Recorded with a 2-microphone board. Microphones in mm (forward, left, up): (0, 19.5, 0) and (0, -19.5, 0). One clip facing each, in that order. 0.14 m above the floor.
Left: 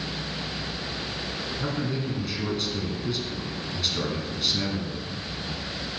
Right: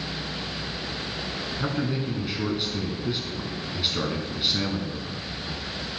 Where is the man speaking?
20° right (ahead or behind), 1.1 m.